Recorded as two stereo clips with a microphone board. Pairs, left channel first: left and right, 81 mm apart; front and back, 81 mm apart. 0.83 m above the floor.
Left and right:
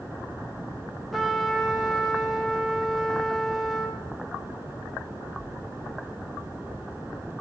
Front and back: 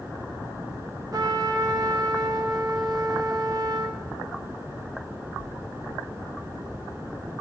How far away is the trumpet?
About 0.6 m.